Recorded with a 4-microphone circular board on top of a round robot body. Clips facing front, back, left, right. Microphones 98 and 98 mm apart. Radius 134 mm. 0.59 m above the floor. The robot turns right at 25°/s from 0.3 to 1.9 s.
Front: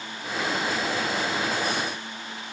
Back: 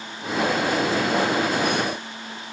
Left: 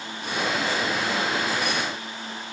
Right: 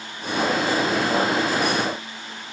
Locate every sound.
Only background noise.